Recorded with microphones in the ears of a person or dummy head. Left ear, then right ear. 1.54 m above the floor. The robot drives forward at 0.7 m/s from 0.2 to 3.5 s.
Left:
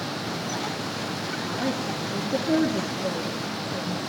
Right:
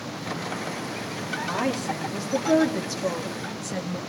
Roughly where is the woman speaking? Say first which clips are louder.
Right 3 dB; right.